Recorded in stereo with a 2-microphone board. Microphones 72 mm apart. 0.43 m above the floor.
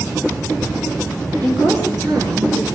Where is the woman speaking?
70° right (ahead or behind), 8.5 m.